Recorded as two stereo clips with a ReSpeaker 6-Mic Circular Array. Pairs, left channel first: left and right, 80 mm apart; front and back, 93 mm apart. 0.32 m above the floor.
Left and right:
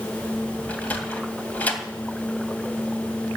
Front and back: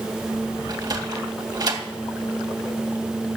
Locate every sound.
0.7 s a sliding door: 155° left, 2 m